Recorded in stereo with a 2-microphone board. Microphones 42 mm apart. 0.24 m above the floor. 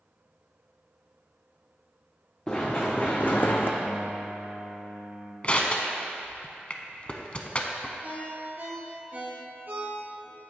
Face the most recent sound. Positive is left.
turn(degrees=-45)  # may be behind; listen again after turning